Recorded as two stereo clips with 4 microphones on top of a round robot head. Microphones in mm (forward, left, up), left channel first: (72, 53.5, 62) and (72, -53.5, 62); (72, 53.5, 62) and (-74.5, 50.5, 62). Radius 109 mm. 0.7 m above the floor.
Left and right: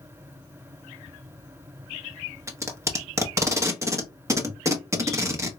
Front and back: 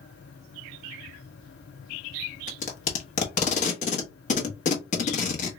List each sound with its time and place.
2.5 s tape being pulled: 30° right, 1.1 m